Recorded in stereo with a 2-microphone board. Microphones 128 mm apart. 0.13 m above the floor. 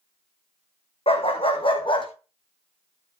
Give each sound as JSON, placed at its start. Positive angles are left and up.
{"t": 1.1, "sound": "a dog barking", "side_deg": 50, "distance_m": 3.0}